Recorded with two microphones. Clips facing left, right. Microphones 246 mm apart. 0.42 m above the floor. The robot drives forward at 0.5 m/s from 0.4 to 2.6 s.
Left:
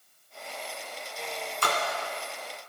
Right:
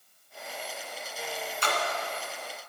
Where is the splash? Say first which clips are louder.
Left 1 dB; 60° left (ahead or behind), 1.0 m; by 1.8 s 65° left (ahead or behind), 0.9 m.